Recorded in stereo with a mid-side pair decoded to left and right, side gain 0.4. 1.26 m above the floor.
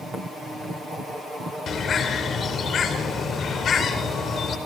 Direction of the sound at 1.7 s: 55° left.